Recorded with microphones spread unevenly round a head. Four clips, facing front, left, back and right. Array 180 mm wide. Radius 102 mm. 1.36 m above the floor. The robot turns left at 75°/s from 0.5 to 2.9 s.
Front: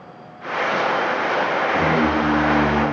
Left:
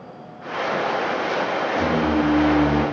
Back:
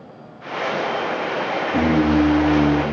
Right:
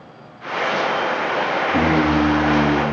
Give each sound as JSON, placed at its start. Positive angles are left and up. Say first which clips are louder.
{"t": 1.7, "sound": "singing", "louder": "right 5 dB, back 4 dB", "azimuth_deg": -125, "distance_m": 4.0}